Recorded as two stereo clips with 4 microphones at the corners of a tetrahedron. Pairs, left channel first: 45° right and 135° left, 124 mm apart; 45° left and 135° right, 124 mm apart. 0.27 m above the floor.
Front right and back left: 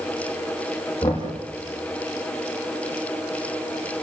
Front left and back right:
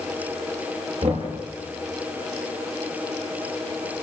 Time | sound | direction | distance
1.0 | knocking | 110° right | 7.5 m